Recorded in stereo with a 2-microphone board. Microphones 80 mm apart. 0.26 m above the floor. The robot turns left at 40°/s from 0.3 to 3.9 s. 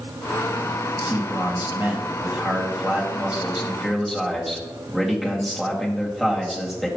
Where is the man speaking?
20° right (ahead or behind), 1.6 m; by 6.9 s centre (ahead or behind), 1.6 m.